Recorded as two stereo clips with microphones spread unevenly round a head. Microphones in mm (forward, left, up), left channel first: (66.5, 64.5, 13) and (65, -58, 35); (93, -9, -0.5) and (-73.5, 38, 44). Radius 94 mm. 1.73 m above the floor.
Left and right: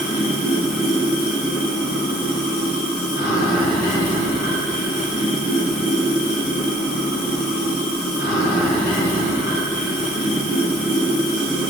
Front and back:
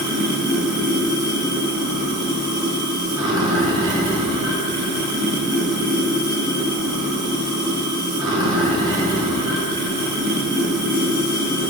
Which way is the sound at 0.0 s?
100° left.